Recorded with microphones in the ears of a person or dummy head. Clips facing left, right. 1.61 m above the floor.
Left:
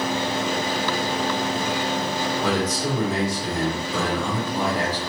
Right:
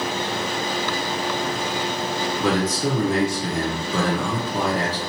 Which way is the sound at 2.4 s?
65° right (ahead or behind).